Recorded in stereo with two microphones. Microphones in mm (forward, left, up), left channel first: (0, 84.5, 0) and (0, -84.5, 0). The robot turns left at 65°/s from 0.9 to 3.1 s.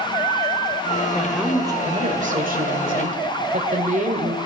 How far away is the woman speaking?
About 1.6 m.